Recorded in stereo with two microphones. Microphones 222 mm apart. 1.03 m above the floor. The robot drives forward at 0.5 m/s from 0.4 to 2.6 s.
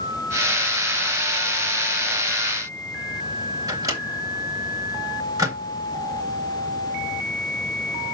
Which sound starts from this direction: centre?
A microwave, at 3.7 s.